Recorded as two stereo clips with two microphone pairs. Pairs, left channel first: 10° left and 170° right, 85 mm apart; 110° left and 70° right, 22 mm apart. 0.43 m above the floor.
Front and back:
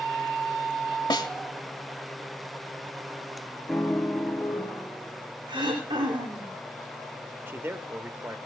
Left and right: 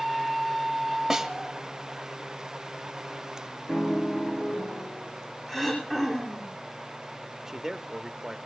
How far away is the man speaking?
About 1.0 m.